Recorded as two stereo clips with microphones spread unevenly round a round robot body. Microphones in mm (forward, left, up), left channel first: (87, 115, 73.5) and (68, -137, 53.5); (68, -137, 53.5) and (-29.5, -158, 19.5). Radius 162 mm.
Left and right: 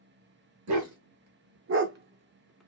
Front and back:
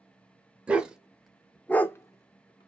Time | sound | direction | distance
0.7 | a dog barking | 85° right | 1.0 m